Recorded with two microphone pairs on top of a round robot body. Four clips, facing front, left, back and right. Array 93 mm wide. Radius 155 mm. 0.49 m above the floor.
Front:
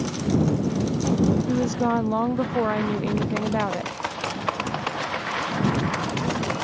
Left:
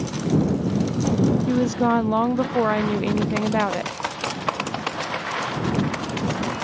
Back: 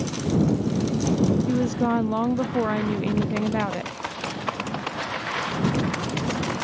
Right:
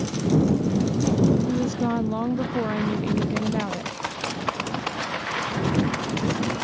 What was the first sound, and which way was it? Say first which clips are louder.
A woman speaking: left 4 dB, even; 115° left.